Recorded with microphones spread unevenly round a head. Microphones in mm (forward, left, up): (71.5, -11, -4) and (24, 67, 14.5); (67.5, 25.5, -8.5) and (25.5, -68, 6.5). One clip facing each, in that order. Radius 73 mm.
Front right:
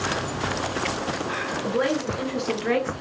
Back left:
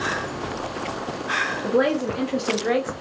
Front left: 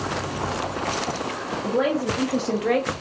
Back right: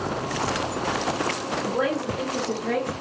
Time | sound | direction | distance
1.6 | a woman speaking | 130° left | 1.2 m